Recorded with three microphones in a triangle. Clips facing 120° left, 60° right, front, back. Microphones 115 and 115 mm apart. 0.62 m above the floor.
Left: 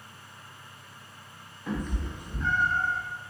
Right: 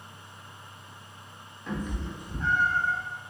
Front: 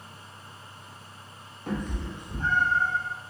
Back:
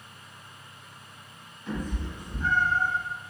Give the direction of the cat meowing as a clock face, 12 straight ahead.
11 o'clock.